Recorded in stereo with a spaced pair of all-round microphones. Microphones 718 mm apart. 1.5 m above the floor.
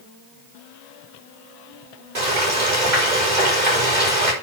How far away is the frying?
About 5.5 m.